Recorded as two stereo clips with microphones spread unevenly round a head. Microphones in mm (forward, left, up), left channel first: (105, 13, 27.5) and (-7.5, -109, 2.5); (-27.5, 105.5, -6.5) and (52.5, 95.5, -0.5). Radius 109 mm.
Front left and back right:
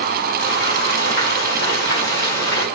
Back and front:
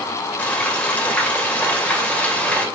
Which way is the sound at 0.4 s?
100° left.